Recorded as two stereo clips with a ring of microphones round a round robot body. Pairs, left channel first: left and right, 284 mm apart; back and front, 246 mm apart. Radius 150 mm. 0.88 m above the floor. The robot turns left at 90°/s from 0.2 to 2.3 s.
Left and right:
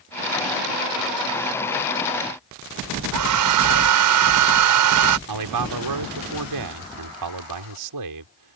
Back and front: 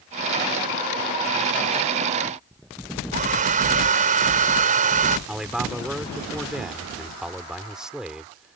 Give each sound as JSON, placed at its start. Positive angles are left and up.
{"t": 3.1, "sound": "a hair dryer", "azimuth_deg": -65}
{"t": 5.3, "sound": "a man speaking", "azimuth_deg": -90}